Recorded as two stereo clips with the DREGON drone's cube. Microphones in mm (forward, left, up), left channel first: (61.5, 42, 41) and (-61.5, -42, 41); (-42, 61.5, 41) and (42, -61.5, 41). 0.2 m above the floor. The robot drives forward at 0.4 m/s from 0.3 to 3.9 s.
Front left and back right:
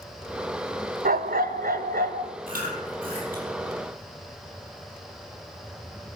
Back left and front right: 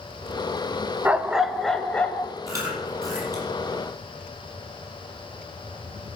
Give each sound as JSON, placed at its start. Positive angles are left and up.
{"t": 1.1, "sound": "a dog barking", "azimuth_deg": -135, "distance_m": 0.6}
{"t": 2.5, "sound": "chewing", "azimuth_deg": -125, "distance_m": 6.0}